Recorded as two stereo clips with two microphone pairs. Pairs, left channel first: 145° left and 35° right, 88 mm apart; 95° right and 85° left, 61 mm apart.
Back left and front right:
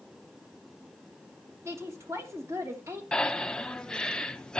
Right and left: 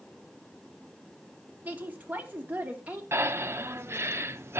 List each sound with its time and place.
1.6 s a woman speaking: 20° left, 2.5 m
3.1 s breathing: 70° left, 0.7 m